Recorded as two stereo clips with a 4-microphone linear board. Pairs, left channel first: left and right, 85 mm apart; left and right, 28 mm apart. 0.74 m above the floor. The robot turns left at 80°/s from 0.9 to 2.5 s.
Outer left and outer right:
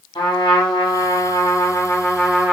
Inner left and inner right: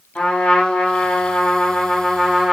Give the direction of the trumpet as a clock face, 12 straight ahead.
8 o'clock.